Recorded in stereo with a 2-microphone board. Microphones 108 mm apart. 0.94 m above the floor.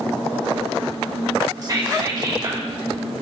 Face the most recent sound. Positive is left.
turn(degrees=-35)  # may be behind; listen again after turning